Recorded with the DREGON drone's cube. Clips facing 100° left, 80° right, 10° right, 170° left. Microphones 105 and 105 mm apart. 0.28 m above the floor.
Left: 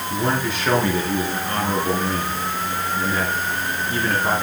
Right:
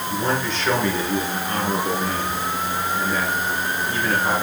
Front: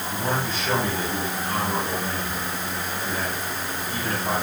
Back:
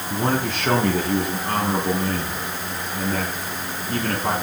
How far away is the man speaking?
About 4.5 m.